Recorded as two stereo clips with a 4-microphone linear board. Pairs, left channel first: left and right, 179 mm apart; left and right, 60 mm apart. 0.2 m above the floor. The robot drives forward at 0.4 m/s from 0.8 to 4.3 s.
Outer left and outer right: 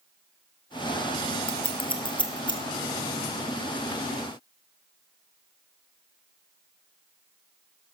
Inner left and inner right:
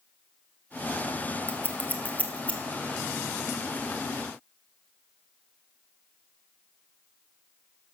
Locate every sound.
1.5 s scissors: 35° left (ahead or behind), 1.5 m; by 2.6 s 25° left (ahead or behind), 1.9 m